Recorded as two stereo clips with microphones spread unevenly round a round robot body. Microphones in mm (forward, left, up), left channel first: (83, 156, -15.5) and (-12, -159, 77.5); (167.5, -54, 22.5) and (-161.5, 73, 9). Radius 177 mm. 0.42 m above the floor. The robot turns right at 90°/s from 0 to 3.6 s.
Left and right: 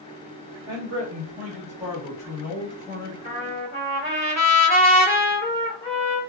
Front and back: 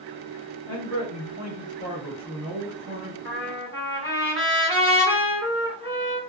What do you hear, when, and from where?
0.7 s a man speaking: 100° right, 1.2 m; by 3.1 s 125° left, 1.2 m
3.2 s a trumpet: 65° left, 1.7 m; by 6.2 s 95° left, 1.7 m